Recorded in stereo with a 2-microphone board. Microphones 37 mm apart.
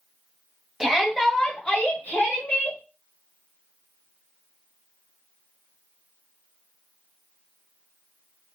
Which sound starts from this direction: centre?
A shout, at 0.8 s.